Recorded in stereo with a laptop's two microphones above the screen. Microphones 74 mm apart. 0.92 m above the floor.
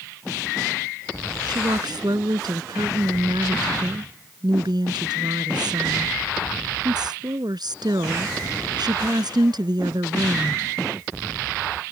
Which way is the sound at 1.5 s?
70° right (ahead or behind).